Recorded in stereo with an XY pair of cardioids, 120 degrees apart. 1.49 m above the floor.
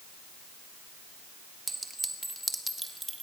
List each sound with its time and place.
1.7 s a clink: straight ahead, 1.9 m